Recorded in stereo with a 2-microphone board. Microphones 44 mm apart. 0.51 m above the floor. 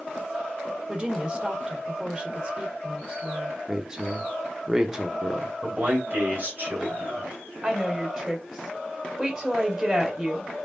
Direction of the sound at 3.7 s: 15° right (ahead or behind).